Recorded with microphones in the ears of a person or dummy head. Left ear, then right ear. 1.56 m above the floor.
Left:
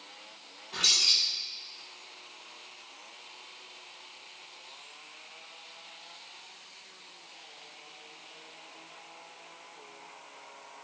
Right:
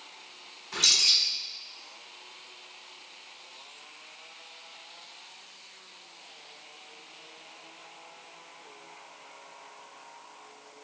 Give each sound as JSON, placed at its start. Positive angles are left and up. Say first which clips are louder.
{"t": 0.7, "sound": "a bird", "louder": "right 2 dB", "side_deg": -70, "distance_m": 1.1}